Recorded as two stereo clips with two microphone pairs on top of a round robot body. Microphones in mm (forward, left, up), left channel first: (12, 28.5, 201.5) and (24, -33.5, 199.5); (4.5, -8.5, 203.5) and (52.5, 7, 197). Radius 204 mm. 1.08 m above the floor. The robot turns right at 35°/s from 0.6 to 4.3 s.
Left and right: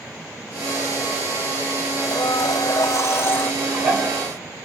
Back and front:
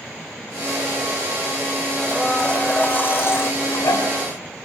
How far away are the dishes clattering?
About 2.5 m.